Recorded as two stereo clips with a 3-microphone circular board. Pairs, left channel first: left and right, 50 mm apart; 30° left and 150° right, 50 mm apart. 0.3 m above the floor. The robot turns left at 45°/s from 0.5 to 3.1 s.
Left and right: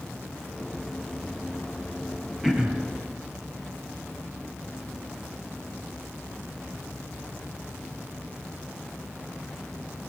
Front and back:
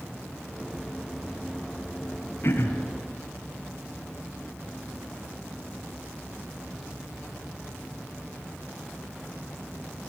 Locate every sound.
2.4 s throat clearing: 10° right, 2 m; by 2.9 s 30° right, 2 m